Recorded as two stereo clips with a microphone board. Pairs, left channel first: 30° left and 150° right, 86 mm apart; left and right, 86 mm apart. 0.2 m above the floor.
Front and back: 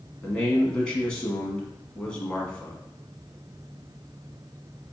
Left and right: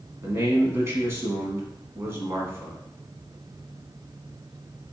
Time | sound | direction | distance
0.2 | a man speaking | 45° right | 1.4 m